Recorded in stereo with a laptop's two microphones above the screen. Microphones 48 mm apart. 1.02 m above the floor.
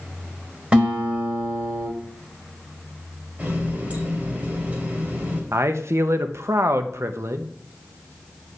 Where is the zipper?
No zipper in this recording.